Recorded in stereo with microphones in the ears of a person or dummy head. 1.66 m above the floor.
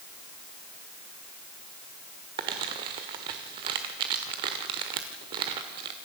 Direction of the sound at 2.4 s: 25° right (ahead or behind).